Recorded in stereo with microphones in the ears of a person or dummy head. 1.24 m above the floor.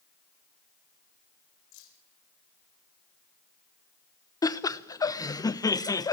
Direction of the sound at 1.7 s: 75° left (ahead or behind).